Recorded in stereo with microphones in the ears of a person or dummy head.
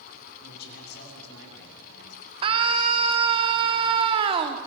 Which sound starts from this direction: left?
A man speaking, at 0.4 s.